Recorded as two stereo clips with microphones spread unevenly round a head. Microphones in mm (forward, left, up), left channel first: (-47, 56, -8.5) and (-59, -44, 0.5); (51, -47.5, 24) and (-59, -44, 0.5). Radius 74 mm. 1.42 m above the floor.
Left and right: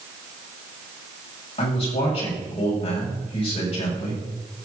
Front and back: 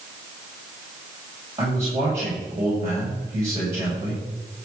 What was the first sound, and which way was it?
A man speaking, 105° left.